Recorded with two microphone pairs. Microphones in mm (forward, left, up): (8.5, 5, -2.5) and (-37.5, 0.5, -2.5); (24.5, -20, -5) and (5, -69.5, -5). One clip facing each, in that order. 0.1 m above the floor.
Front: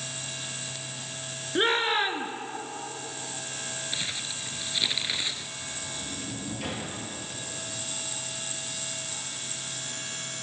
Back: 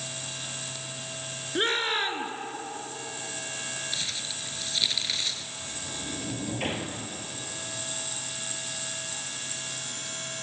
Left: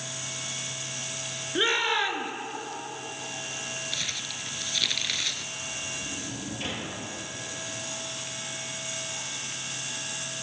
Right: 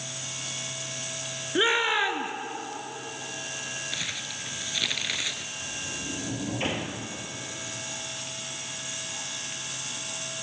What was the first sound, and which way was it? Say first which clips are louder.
A shout: front 2 dB, right 2 dB; 65° right.